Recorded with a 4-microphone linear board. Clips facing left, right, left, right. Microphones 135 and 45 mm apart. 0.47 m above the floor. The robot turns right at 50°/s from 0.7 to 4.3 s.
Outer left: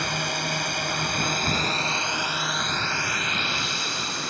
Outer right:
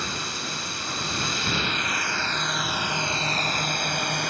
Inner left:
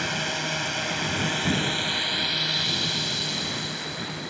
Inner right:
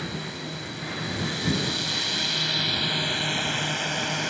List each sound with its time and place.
0.0 s a drone: 90° left; by 4.3 s 90° right